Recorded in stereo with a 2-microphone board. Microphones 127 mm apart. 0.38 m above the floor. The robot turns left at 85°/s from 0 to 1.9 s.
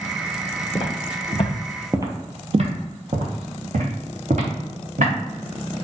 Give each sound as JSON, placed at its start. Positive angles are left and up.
{"t": 0.8, "sound": "footsteps", "side_deg": 45, "distance_m": 1.0}